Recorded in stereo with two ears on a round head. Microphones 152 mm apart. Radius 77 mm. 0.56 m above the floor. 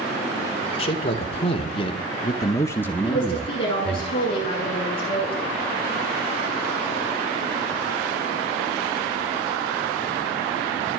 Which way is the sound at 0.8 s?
35° left (ahead or behind).